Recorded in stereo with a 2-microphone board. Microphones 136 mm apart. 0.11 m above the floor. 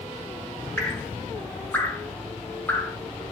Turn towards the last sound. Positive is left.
turn(degrees=15)  # may be behind; listen again after turning